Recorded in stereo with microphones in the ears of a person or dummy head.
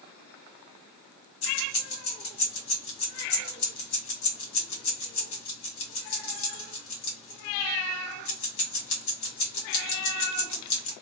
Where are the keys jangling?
75° left (ahead or behind), 1.6 m.